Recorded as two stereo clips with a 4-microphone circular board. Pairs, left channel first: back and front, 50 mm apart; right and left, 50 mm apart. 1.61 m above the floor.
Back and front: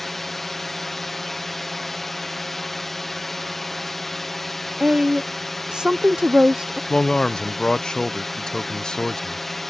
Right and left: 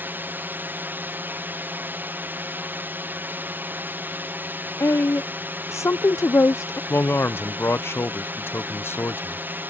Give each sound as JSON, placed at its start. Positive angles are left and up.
{"t": 0.0, "sound": "a drone", "azimuth_deg": 95}
{"t": 4.8, "sound": "a woman speaking", "azimuth_deg": -75}
{"t": 6.9, "sound": "a man speaking", "azimuth_deg": -110}